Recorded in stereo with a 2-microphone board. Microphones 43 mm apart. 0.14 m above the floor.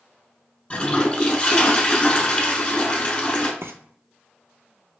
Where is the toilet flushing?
30° left (ahead or behind), 0.9 m.